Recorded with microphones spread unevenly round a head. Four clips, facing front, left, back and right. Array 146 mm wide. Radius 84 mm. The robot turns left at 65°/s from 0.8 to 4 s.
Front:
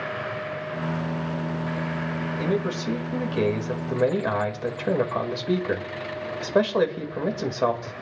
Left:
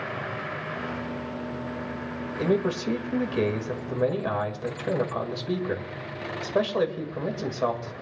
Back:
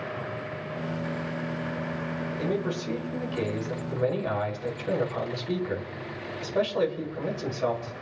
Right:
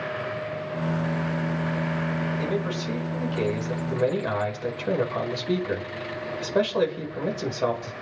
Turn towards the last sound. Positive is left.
turn(degrees=-5)